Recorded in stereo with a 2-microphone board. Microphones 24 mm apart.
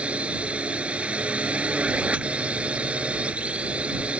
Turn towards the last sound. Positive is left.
turn(degrees=-60)  # may be behind; listen again after turning